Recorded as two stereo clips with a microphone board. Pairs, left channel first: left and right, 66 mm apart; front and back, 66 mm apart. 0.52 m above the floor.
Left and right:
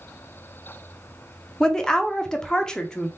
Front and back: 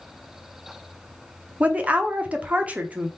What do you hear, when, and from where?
1.6 s a woman speaking: 155° left, 0.7 m